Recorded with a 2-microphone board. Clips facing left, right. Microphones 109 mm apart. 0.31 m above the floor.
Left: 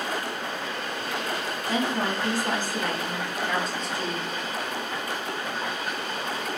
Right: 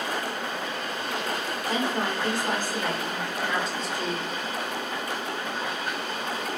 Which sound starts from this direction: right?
A woman speaking, at 1.7 s.